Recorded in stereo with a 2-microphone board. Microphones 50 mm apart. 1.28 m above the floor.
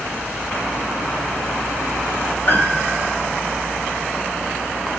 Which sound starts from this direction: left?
A piano, at 2.5 s.